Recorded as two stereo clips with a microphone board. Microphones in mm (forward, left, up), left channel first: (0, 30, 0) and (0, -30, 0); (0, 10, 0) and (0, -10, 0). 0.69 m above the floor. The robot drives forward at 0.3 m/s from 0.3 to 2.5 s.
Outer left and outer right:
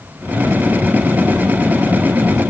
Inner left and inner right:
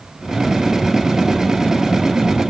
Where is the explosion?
I don't hear an explosion.